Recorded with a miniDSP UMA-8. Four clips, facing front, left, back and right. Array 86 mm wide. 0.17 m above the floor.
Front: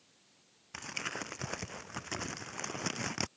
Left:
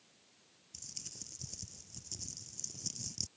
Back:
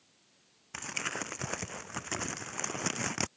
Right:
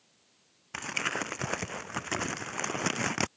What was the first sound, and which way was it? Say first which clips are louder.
Crumpling: right 27 dB, back 3 dB; 95° right.